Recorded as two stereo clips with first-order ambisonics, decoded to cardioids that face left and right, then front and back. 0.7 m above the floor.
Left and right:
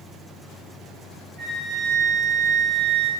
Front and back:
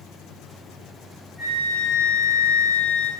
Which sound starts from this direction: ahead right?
A flute, at 1.4 s.